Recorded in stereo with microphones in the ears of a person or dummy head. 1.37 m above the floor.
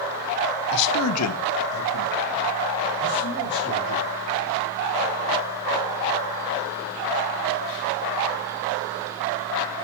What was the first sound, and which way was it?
A man speaking, 50° left (ahead or behind).